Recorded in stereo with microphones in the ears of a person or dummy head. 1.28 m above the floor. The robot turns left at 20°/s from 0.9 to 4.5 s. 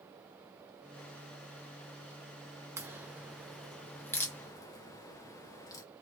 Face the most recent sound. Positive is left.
turn(degrees=20)  # may be behind; listen again after turning